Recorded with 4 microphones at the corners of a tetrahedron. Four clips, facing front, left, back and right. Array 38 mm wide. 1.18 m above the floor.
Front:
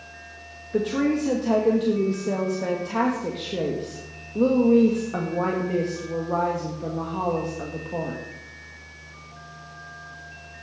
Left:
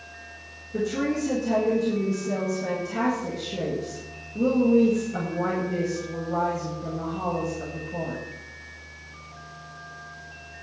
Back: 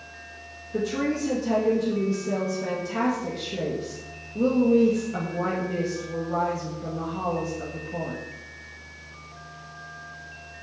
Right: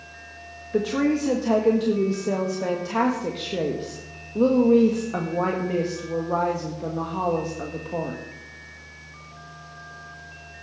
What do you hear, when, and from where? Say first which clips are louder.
0.7 s a woman speaking: right 4 dB, front 3 dB; 60° right, 1.7 m